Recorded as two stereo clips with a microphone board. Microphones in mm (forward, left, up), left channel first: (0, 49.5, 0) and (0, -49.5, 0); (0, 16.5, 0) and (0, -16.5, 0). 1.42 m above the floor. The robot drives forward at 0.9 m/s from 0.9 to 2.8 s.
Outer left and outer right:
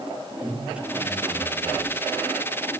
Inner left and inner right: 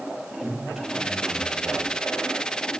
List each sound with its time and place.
0.4 s a man speaking: 15° right (ahead or behind), 7.5 m; by 1.9 s 10° right (ahead or behind), 8 m